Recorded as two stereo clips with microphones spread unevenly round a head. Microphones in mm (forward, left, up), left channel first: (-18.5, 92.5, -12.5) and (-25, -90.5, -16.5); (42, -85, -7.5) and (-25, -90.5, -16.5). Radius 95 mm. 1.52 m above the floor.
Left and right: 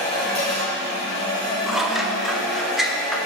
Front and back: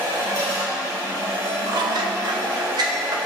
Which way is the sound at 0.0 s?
145° left.